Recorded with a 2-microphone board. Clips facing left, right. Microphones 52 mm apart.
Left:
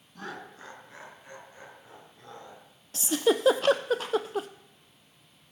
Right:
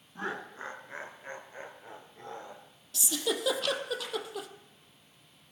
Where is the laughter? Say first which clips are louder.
Right 4 dB; 30° right (ahead or behind), 1.2 m; by 2.6 s 40° right (ahead or behind), 3 m.